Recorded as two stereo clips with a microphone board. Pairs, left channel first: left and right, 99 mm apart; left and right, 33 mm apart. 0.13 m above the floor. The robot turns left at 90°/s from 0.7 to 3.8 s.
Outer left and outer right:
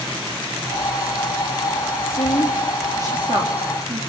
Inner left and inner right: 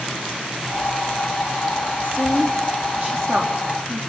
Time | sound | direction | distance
2.0 | a woman speaking | 50° left (ahead or behind) | 5 m